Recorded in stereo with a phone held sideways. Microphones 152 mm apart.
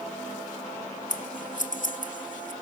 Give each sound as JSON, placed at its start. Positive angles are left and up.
{"t": 1.1, "sound": "scissors", "side_deg": 65, "distance_m": 1.4}